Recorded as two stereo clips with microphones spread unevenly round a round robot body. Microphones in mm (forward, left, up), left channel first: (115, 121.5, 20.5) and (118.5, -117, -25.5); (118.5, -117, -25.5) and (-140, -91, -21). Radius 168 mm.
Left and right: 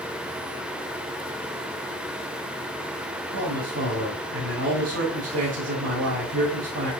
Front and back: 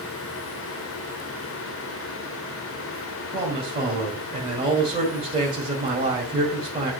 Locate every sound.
3.3 s a man speaking: 125° right, 2 m